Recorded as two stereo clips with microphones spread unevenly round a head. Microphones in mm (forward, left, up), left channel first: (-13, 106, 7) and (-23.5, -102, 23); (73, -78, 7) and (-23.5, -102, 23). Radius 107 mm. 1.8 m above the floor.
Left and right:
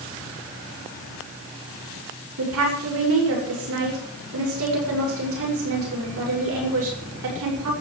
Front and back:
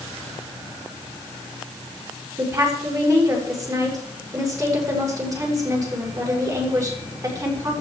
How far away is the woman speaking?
About 7 m.